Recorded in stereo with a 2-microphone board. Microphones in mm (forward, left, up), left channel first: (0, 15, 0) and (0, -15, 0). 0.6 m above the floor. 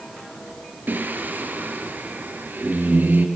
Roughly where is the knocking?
I don't hear knocking.